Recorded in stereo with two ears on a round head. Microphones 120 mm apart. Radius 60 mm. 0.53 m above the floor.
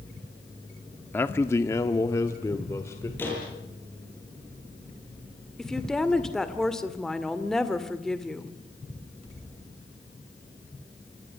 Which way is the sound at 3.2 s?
15° left (ahead or behind).